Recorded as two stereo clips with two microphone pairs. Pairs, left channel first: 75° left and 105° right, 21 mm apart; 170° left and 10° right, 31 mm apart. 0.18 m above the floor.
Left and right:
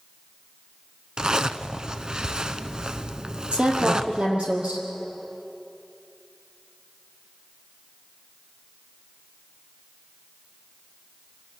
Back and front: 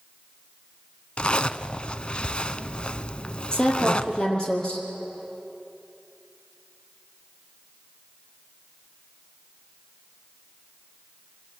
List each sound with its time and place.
1.2 s a zipper: 145° right, 0.7 m
3.5 s a woman speaking: 125° right, 4 m